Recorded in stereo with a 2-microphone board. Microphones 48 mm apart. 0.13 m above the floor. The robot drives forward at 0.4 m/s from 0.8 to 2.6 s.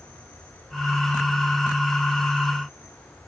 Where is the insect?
45° left (ahead or behind), 9 m; by 3.3 s 50° left (ahead or behind), 8.5 m.